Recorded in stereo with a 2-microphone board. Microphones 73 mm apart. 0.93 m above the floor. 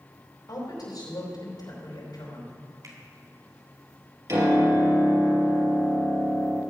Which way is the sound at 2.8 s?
55° right (ahead or behind).